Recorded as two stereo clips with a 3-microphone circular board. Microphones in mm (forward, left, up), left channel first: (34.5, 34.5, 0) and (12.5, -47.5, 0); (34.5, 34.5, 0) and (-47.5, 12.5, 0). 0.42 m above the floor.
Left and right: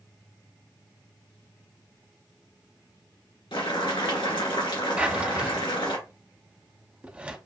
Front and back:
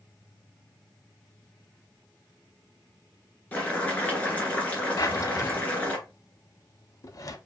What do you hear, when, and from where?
3.5 s boiling: 85° left, 1.6 m
5.0 s a drawer: 30° right, 0.6 m